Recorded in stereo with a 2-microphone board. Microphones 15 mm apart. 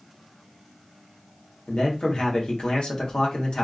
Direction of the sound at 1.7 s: 75° left (ahead or behind).